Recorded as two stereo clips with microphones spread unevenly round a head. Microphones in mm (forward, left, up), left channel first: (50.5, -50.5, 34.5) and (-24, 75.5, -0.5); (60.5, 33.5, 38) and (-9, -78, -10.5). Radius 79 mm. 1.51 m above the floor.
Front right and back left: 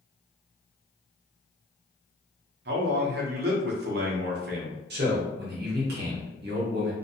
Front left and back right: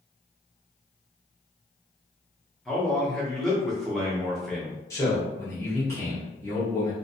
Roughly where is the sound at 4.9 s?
Behind left.